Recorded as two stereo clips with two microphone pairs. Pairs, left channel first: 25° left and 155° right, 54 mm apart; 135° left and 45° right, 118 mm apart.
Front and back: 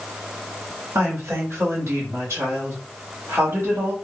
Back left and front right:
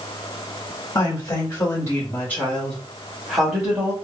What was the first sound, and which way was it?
A woman speaking, straight behind.